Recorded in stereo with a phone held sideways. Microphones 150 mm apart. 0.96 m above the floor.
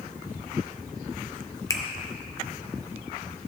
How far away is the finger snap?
About 0.8 m.